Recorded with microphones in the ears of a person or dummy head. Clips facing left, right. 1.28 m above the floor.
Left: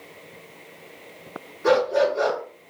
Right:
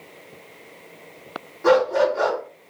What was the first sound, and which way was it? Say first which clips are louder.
A dog barking: right 2 dB; 65° right (ahead or behind).